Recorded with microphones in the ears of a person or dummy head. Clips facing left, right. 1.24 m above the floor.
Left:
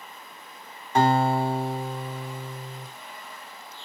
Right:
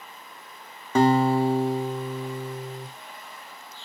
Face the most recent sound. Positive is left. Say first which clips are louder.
# right 2 dB
turn(degrees=-65)  # may be behind; listen again after turning